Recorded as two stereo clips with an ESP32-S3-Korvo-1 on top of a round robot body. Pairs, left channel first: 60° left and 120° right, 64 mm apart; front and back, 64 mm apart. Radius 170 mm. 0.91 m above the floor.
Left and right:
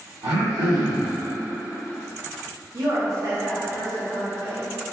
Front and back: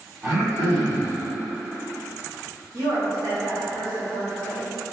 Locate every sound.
0.2 s throat clearing: 125° right, 1.7 m
2.7 s a woman speaking: 150° right, 1.5 m